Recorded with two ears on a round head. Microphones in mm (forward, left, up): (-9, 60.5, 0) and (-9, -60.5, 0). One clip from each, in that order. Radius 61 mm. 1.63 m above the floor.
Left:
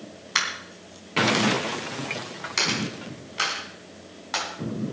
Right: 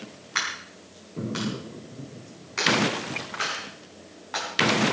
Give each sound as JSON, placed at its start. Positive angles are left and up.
{"t": 0.3, "sound": "a dropped coin", "side_deg": 65, "distance_m": 4.0}